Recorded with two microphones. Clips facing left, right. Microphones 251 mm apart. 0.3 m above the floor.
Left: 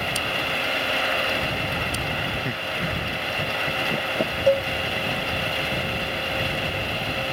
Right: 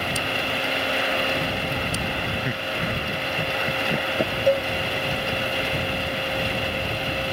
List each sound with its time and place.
2.5 s laughter: 5° right (ahead or behind)
4.5 s a cowbell: 10° left (ahead or behind)